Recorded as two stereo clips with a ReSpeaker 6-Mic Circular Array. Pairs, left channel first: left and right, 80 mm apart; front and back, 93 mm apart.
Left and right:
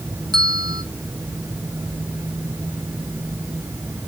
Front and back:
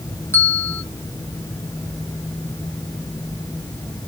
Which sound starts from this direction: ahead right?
A bell, at 0.3 s.